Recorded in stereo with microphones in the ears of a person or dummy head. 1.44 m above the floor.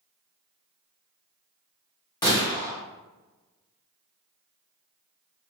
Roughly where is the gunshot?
Left.